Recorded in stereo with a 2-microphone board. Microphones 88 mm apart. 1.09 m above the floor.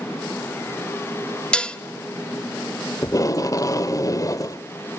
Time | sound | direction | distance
1.5 | dishes clattering | 10° left (ahead or behind) | 0.9 m
3.0 | tape being pulled | 40° left (ahead or behind) | 0.9 m